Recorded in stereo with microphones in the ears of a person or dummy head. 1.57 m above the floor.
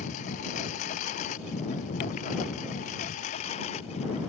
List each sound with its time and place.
0.0 s a lawn mower: 45° left (ahead or behind); by 4.3 s 40° left (ahead or behind)